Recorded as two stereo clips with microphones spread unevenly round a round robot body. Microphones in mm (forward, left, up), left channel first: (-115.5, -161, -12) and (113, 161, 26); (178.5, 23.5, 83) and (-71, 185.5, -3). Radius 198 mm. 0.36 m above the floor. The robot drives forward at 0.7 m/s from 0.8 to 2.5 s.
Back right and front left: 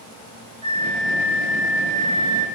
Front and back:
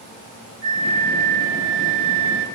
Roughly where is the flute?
Left.